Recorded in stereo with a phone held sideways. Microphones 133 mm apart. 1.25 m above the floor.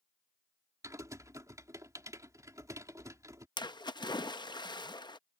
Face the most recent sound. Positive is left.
turn(degrees=35)  # may be behind; listen again after turning